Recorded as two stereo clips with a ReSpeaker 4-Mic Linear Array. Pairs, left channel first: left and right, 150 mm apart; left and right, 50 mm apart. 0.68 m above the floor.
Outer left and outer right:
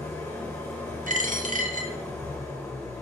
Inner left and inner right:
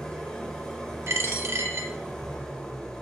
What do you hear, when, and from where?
0.0 s an engine running: 20° left (ahead or behind), 1.1 m
1.1 s a dropped coin: 60° right (ahead or behind), 0.5 m